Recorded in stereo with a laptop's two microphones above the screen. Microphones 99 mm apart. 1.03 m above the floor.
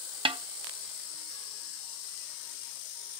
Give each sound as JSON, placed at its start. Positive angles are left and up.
{"t": 0.2, "sound": "a snare drum", "side_deg": -60, "distance_m": 0.7}